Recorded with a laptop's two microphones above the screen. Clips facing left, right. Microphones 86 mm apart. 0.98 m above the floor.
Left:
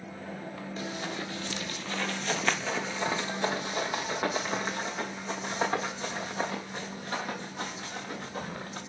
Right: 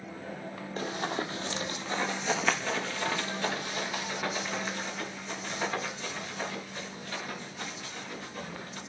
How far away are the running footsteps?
About 1.4 m.